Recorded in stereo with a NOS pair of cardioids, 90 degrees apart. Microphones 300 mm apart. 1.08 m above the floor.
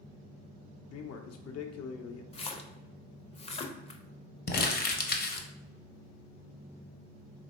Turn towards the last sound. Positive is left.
turn(degrees=35)